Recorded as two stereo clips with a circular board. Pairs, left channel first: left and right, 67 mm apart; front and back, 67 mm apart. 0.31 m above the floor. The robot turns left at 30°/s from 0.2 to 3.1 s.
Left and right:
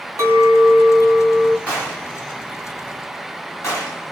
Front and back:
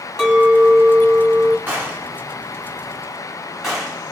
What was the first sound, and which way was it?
A clink, 105° right.